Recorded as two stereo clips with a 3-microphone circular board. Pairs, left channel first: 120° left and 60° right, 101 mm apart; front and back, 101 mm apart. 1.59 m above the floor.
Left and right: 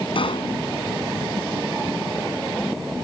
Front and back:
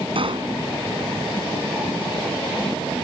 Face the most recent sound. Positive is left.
turn(degrees=150)